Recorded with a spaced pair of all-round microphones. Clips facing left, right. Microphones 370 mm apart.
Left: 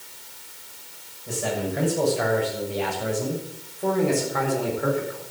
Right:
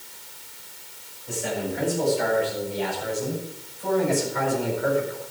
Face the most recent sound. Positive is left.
turn(degrees=60)  # may be behind; listen again after turning